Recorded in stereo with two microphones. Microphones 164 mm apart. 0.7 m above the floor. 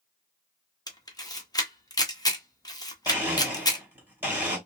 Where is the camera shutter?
25° left (ahead or behind), 0.7 m.